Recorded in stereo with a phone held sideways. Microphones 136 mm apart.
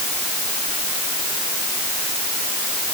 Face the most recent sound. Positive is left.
No sound to turn to.